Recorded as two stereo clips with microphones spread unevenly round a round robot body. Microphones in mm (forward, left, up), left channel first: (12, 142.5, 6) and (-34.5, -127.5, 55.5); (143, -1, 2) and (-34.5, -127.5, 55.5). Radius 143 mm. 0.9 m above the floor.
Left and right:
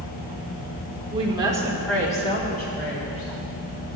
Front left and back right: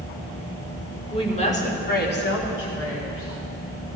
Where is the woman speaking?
30° right, 2.5 m; by 3.3 s 45° left, 2.5 m.